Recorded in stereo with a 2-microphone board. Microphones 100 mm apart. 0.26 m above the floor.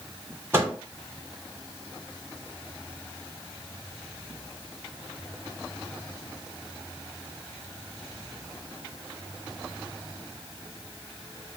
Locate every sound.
0.5 s a microwave: 25° right (ahead or behind), 1.3 m